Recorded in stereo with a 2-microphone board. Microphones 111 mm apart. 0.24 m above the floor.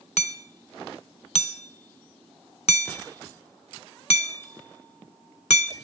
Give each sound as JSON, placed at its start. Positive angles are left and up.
{"t": 0.2, "sound": "hammering", "side_deg": 75, "distance_m": 0.6}